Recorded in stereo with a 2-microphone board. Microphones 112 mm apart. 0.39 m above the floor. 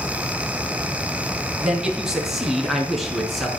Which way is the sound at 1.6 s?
5° right (ahead or behind).